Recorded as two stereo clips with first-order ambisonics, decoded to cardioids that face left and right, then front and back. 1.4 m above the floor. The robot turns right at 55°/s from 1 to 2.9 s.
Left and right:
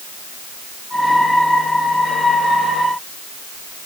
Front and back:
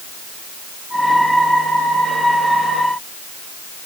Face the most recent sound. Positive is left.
No sound to turn to.